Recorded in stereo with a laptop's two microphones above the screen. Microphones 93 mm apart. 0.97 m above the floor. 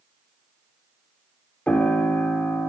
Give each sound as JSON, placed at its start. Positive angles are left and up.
{"t": 1.7, "sound": "a piano", "side_deg": 15, "distance_m": 1.1}